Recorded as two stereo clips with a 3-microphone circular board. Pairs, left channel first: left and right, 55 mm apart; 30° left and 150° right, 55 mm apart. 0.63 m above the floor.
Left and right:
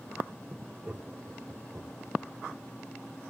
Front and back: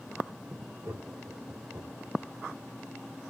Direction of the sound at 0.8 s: 140° right.